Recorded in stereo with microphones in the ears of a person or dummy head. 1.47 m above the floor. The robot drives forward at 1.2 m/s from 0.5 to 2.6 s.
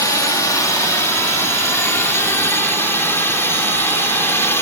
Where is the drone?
15° left (ahead or behind); by 4.6 s 10° left (ahead or behind).